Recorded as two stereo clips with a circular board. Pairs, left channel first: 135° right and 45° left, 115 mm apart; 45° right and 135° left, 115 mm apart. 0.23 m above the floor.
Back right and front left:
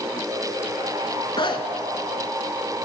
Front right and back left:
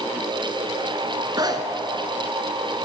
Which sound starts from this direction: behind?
A zipper, at 1.4 s.